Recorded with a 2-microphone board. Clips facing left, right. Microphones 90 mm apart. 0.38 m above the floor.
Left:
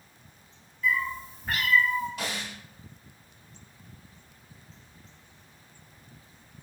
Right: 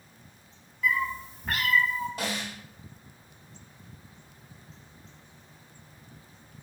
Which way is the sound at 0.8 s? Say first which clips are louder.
Right 1 dB; 85° right.